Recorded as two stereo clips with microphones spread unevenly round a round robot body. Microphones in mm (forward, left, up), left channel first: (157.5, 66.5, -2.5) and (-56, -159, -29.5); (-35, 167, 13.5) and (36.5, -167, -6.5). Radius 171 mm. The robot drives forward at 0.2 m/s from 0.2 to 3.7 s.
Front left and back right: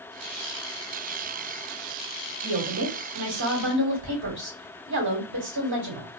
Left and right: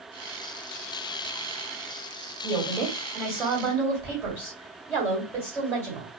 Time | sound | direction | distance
2.4 | a woman speaking | 175° right | 1.8 m